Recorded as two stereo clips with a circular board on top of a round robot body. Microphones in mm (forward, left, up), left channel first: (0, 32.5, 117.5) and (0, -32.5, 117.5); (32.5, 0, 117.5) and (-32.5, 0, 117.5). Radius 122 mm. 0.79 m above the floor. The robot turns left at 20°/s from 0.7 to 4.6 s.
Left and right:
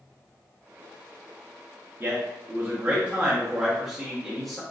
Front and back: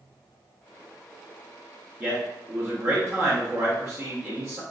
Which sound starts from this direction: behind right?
A man speaking, at 2.0 s.